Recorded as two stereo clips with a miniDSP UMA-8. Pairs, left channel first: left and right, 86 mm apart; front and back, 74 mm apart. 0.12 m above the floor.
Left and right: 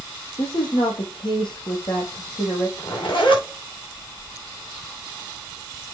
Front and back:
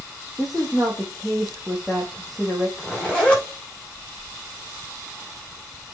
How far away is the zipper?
About 6 m.